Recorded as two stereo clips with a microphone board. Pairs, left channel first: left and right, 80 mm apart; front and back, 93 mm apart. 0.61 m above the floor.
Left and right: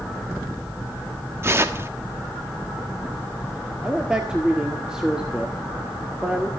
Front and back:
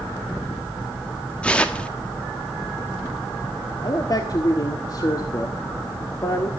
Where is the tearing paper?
65° right, 1.4 m.